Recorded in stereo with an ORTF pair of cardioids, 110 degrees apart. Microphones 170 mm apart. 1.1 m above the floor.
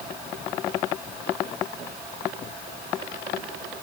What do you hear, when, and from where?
Only background noise.